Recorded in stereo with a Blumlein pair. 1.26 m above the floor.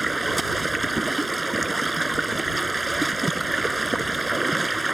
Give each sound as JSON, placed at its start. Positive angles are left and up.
{"t": 0.0, "sound": "running water", "azimuth_deg": -5}